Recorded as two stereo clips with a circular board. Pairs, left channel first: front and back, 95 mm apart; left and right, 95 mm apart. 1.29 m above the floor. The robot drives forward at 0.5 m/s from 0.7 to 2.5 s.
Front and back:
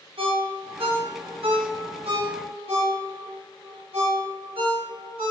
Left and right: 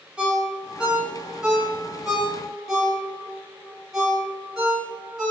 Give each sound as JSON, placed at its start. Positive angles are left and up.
{"t": 0.2, "sound": "a ringtone", "azimuth_deg": -170, "distance_m": 0.7}